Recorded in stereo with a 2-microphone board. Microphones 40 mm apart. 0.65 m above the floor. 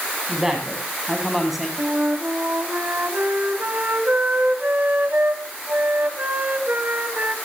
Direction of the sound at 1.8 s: 50° right (ahead or behind).